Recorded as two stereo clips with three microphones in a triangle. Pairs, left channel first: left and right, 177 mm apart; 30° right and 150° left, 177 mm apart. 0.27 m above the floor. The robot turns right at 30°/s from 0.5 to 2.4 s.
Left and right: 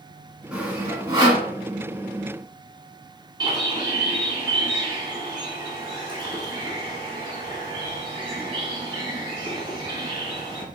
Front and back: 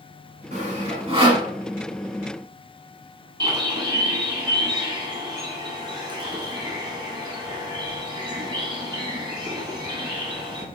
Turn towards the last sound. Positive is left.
turn(degrees=-150)